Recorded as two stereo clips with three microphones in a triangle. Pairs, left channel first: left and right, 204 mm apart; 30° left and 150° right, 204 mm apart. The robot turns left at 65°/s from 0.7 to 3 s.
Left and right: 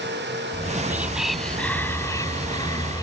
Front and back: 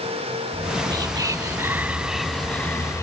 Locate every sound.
0.5 s whispering: 140° right; by 3.0 s 70° left